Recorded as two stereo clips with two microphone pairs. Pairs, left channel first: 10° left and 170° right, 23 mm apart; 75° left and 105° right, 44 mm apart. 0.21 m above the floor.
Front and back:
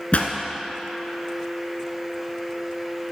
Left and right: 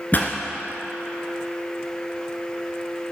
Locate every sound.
0.1 s a pop: 30° left, 1.3 m